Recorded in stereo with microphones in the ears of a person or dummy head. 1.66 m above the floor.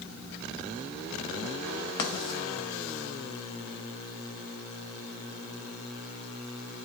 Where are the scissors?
No scissors in this recording.